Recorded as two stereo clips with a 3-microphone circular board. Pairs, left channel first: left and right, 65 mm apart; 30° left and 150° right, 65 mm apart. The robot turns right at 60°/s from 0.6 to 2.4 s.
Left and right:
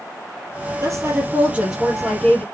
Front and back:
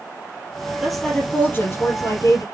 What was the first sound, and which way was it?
A woman speaking, 65° right.